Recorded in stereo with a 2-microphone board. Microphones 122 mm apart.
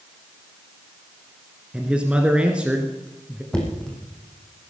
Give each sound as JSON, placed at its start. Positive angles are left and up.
{"t": 1.7, "sound": "a man speaking", "side_deg": -10, "distance_m": 1.6}
{"t": 3.5, "sound": "knocking", "side_deg": 5, "distance_m": 3.5}